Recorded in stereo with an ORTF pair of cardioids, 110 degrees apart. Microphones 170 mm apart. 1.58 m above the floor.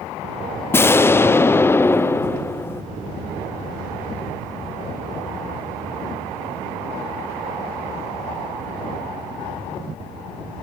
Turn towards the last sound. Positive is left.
turn(degrees=15)